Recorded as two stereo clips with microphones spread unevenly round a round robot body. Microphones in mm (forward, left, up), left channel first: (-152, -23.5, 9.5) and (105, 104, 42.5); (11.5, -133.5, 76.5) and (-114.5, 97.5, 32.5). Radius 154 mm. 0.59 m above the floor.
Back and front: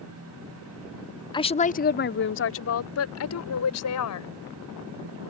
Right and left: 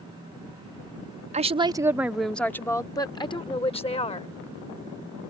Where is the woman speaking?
150° left; by 4.3 s 130° right.